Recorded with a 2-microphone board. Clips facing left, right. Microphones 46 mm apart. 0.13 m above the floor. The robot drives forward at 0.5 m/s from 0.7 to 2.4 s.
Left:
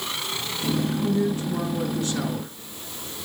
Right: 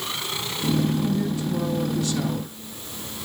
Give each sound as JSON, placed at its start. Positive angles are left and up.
{"t": 0.9, "sound": "a man speaking", "side_deg": 35, "distance_m": 1.6}